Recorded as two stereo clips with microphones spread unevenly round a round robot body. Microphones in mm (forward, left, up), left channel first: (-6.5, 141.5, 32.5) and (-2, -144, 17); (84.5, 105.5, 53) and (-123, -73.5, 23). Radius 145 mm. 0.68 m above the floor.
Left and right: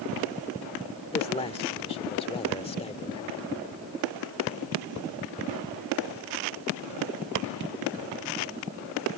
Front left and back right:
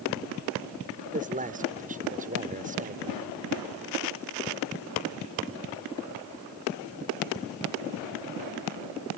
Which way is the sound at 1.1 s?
160° left.